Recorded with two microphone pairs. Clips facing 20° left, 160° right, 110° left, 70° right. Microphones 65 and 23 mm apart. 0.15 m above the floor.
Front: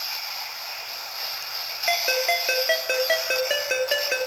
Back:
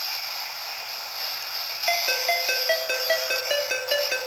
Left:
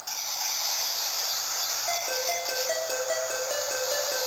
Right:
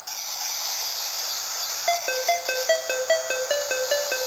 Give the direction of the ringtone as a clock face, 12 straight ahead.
2 o'clock.